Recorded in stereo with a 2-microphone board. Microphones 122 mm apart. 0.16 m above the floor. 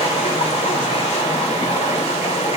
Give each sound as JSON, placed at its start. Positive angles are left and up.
{"t": 0.0, "sound": "running water", "side_deg": 80, "distance_m": 4.0}